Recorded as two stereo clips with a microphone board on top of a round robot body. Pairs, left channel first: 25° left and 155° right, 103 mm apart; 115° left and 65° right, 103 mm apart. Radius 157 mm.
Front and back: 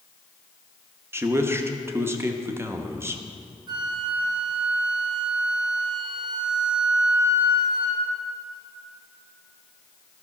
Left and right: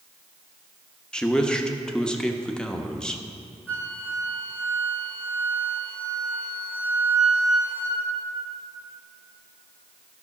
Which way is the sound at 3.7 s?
Straight behind.